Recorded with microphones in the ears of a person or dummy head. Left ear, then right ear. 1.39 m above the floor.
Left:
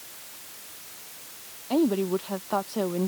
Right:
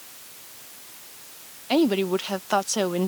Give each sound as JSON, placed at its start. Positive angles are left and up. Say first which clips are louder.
{"t": 1.7, "sound": "a woman speaking", "louder": "right 3 dB", "side_deg": -70}